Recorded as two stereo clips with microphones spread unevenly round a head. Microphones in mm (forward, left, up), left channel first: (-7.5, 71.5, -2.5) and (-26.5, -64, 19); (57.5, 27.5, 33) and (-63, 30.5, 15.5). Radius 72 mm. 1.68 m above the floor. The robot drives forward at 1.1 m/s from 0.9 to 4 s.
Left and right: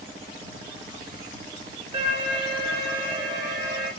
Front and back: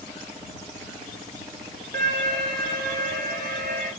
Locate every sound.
1.9 s an alarm: 150° right, 6 m; by 3.9 s 160° right, 7.5 m